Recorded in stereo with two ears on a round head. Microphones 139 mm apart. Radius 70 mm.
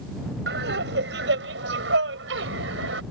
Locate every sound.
0.5 s laughter: 75° right (ahead or behind); by 3.0 s 85° right